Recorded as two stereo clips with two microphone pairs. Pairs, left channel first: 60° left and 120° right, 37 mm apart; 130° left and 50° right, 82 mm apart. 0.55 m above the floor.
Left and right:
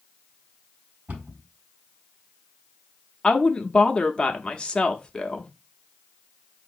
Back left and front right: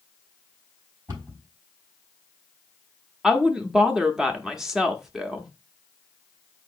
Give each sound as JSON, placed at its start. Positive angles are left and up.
{"t": 1.1, "sound": "a cupboard door", "azimuth_deg": -95, "distance_m": 4.0}
{"t": 3.2, "sound": "a woman speaking", "azimuth_deg": 35, "distance_m": 0.7}